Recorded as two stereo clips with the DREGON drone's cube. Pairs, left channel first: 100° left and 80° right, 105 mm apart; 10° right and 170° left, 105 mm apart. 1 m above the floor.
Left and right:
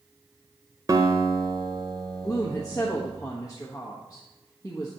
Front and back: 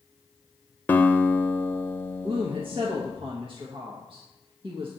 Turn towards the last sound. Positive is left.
turn(degrees=150)